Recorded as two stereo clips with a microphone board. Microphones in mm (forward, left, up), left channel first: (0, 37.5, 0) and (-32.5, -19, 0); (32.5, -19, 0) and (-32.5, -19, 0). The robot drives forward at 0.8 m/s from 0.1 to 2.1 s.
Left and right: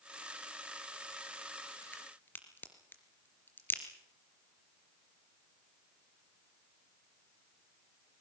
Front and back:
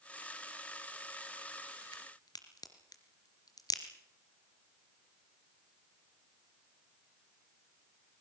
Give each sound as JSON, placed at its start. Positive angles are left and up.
{"t": 1.9, "sound": "a crack", "azimuth_deg": 0, "distance_m": 3.5}